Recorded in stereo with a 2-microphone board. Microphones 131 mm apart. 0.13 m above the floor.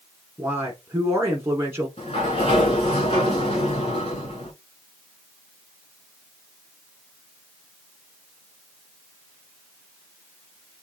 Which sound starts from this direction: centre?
A man speaking, at 0.4 s.